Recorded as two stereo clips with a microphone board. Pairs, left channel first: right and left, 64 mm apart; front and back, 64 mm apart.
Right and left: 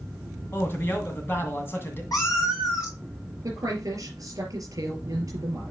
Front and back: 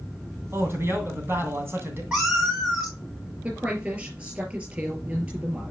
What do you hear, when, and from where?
0.5 s a man speaking: 135° right, 2.5 m
2.1 s a cat meowing: 105° right, 4 m
3.4 s a woman speaking: 115° left, 4 m